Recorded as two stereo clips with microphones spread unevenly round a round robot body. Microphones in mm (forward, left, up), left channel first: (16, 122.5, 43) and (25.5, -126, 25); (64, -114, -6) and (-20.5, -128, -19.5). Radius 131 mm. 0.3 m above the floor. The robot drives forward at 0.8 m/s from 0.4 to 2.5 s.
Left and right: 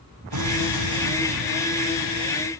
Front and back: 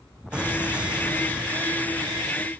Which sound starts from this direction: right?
An explosion, at 0.3 s.